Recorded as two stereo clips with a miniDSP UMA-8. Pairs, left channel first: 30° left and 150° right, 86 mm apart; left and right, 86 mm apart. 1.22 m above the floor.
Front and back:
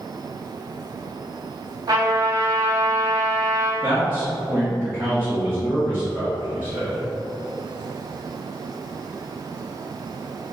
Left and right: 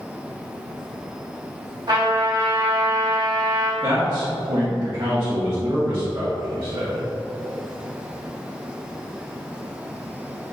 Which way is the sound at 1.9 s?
115° right.